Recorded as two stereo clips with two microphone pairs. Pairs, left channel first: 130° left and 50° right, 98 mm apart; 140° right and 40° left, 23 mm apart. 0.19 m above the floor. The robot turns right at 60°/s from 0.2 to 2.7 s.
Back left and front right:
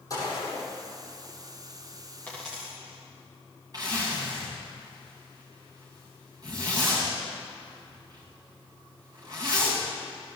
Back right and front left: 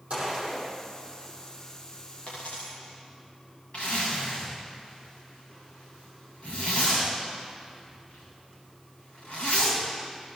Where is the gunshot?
75° left, 7.5 m; by 0.7 s 105° left, 7.5 m.